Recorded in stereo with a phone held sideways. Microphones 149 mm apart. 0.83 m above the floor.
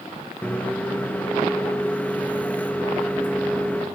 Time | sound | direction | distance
0.4 | a microwave | 10° left (ahead or behind) | 0.8 m